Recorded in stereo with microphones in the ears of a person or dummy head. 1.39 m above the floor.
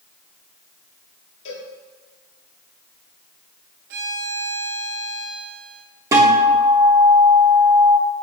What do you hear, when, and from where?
1.4 s a cowbell: 40° left (ahead or behind), 2.5 m
3.9 s a violin: 50° right (ahead or behind), 0.7 m
6.1 s a guitar: 15° right (ahead or behind), 1.1 m